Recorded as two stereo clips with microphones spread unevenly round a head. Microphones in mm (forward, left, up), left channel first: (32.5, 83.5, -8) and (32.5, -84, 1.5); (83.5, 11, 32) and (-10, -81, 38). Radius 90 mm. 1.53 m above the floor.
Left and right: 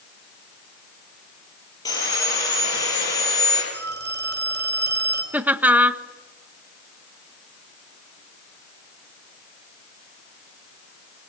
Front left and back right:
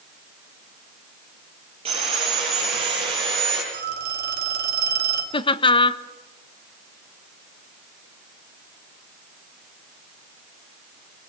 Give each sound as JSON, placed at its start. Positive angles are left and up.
{"t": 1.9, "sound": "sawing", "azimuth_deg": 165, "distance_m": 8.5}
{"t": 3.7, "sound": "a phone ringing", "azimuth_deg": -130, "distance_m": 4.0}
{"t": 5.3, "sound": "laughter", "azimuth_deg": -10, "distance_m": 1.3}